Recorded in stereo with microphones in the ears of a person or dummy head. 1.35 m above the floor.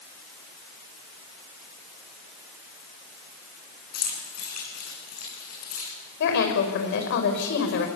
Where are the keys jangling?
55° left (ahead or behind), 8.5 m; by 5.9 s 50° left (ahead or behind), 9 m.